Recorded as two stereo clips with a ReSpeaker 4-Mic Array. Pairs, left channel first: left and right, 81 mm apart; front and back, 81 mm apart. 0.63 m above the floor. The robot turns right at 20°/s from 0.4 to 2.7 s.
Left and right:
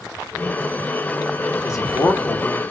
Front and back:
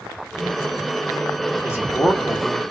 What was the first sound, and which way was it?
A man speaking, 50° left.